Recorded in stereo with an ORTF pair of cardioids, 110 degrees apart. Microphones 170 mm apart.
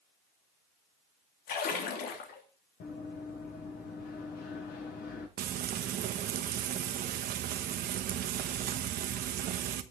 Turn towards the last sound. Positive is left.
turn(degrees=-65)